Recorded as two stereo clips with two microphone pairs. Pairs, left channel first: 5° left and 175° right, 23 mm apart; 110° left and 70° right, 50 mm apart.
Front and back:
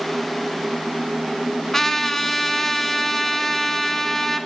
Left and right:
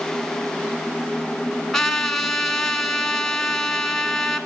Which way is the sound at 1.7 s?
45° left.